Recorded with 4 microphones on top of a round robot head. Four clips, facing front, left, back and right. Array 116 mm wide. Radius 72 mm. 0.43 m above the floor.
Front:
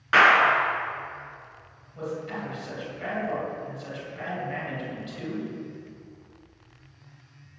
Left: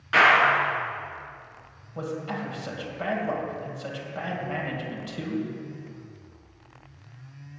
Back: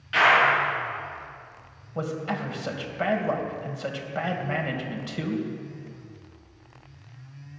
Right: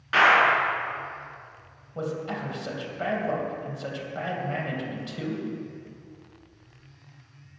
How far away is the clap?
About 6 m.